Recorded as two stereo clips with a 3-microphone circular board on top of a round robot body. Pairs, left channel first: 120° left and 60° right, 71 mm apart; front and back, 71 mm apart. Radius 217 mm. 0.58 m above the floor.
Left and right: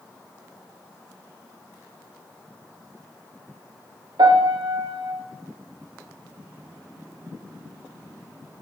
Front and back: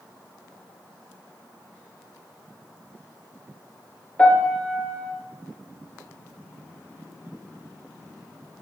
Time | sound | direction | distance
4.2 | a piano | 70° right | 4.5 m